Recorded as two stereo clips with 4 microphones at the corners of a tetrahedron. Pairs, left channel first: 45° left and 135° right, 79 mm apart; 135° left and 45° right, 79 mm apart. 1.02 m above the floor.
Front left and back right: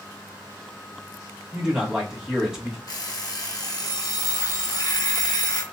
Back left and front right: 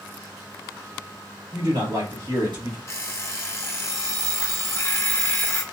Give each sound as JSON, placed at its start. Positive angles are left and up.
{"t": 1.5, "sound": "a man speaking", "azimuth_deg": -55, "distance_m": 1.5}
{"t": 2.9, "sound": "an alarm clock", "azimuth_deg": 80, "distance_m": 0.6}